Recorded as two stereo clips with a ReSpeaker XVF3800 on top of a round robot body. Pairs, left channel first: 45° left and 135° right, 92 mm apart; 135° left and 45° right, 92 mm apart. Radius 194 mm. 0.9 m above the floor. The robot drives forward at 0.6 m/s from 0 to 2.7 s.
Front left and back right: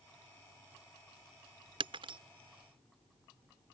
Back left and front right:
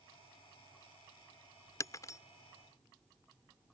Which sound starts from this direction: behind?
Breaking glass, at 1.8 s.